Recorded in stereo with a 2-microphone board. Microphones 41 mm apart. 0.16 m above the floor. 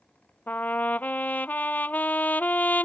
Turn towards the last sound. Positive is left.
turn(degrees=45)  # may be behind; listen again after turning